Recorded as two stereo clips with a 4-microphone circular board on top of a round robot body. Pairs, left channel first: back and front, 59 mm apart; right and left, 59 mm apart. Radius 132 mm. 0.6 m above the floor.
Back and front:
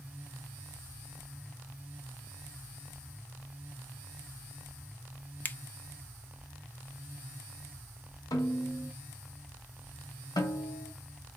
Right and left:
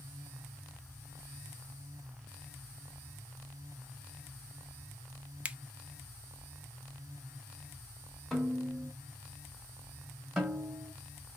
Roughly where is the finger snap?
Behind left.